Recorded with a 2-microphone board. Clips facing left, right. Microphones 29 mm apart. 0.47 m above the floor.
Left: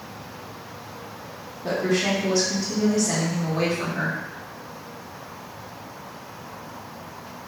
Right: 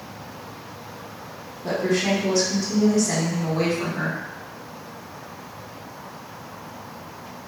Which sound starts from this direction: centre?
A woman speaking, at 1.6 s.